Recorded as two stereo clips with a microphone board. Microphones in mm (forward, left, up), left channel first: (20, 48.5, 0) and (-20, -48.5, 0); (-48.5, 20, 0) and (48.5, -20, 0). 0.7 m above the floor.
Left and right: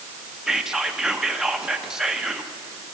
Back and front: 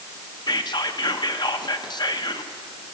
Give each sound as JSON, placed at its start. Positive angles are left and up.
{"t": 0.5, "sound": "whispering", "azimuth_deg": 165, "distance_m": 0.7}